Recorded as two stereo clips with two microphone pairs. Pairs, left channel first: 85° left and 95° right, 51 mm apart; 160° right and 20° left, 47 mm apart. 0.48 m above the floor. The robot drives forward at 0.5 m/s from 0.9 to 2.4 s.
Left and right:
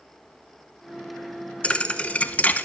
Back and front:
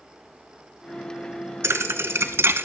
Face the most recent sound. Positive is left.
turn(degrees=25)